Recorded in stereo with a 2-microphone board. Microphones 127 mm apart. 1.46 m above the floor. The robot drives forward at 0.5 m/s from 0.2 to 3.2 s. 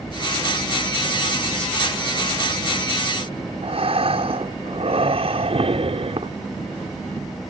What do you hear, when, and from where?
3.6 s breathing: 50° right (ahead or behind)